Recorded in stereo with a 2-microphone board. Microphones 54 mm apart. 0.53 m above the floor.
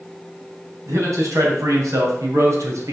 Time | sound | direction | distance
0.9 | a man speaking | 75° right (ahead or behind) | 3.5 m